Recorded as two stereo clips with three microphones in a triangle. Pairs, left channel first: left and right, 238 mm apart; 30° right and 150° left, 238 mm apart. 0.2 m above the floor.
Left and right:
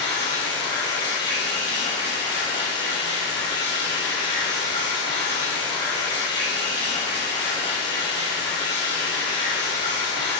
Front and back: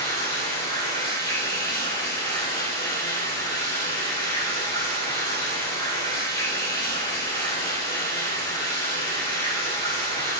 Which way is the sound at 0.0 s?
20° left.